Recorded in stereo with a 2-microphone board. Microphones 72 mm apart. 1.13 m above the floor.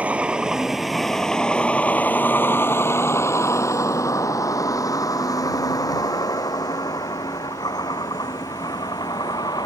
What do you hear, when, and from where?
0.0 s a vehicle: 20° right (ahead or behind); by 9.7 s 70° left (ahead or behind)